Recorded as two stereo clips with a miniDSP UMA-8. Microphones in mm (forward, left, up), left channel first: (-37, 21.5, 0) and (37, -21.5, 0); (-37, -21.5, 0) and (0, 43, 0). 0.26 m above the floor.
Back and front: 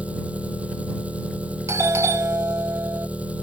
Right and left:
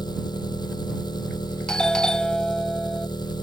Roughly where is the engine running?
Right.